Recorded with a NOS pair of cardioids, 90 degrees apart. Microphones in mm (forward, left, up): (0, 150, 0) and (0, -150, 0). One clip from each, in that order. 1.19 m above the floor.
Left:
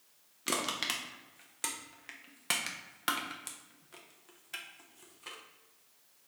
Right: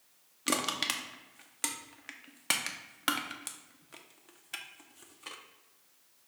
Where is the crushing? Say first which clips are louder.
Right 2 dB; 15° right, 0.6 m.